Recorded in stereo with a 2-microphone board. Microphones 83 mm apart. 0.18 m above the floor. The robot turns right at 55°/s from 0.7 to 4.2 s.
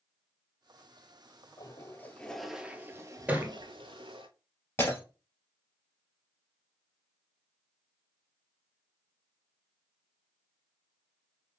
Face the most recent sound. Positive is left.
turn(degrees=25)  # may be behind; listen again after turning